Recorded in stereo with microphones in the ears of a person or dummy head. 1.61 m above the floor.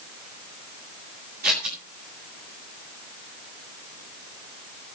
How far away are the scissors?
About 9 m.